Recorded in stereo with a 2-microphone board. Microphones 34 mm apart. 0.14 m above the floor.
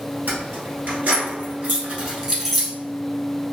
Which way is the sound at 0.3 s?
65° right (ahead or behind).